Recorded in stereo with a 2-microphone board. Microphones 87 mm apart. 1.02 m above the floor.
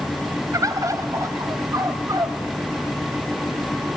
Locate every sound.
0.5 s a bird: 40° right (ahead or behind), 1.3 m